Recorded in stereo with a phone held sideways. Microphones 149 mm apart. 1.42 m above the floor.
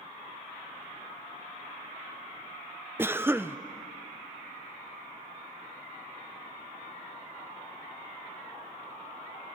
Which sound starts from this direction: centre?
A cough, at 3.0 s.